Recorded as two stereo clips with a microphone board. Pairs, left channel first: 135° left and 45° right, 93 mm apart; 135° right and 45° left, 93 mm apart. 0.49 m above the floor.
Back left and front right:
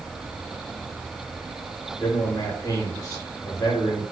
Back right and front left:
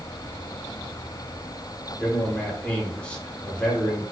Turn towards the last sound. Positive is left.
turn(degrees=155)